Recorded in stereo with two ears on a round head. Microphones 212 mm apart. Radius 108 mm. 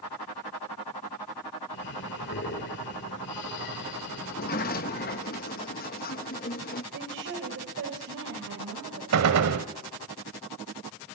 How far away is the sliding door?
About 0.9 m.